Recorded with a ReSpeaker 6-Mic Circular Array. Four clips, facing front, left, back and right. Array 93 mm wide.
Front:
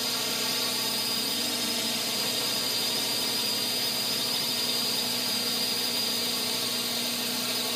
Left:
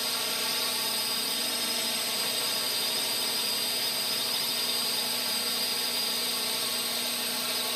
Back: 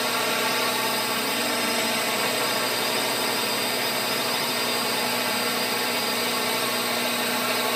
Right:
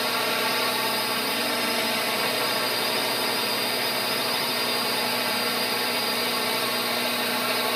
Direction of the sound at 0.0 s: 140° right.